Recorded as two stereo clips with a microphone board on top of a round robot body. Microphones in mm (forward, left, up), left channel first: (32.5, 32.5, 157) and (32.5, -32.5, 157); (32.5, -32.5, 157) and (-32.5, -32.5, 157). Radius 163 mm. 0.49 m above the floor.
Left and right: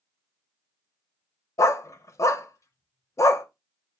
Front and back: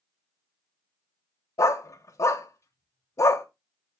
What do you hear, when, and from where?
1.6 s a dog barking: 45° left, 0.7 m